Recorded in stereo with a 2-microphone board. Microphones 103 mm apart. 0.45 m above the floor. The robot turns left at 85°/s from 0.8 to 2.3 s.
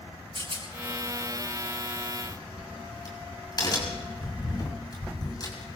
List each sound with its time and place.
0.3 s a rattle: 70° right (ahead or behind), 5.5 m
2.2 s a crack: 50° left (ahead or behind), 6 m; by 5.8 s 40° left (ahead or behind), 6 m